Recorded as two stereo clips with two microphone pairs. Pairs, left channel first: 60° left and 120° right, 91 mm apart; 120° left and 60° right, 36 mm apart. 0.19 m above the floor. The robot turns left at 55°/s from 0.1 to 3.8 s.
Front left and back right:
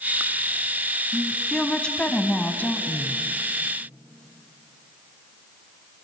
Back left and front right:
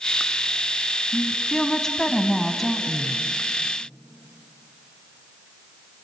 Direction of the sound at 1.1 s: 150° left.